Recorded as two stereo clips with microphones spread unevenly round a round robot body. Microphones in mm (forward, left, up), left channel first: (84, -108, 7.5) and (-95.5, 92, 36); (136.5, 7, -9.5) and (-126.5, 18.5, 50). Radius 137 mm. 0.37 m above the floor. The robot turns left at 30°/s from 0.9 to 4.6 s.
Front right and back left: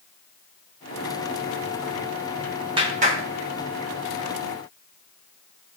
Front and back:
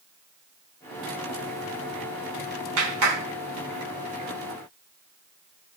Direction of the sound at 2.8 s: 155° right.